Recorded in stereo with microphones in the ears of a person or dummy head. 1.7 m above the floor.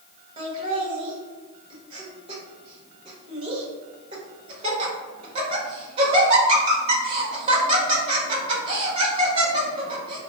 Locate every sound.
0.4 s laughter: 30° right (ahead or behind), 1.1 m